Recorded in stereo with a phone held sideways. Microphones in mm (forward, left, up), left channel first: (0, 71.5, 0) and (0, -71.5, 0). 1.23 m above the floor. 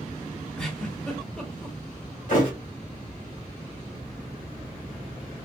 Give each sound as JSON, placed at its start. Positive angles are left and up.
{"t": 0.6, "sound": "a giggle", "side_deg": 5, "distance_m": 1.3}
{"t": 2.3, "sound": "a thud", "side_deg": 60, "distance_m": 1.6}